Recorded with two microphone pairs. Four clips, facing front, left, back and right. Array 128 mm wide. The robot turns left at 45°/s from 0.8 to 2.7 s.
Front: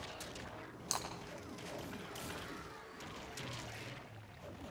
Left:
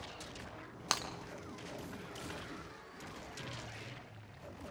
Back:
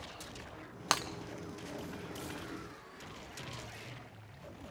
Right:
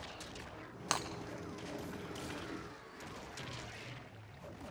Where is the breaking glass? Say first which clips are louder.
Right 1 dB, back 9 dB; 170° left, 2.5 m; by 1.1 s 165° left, 2.5 m.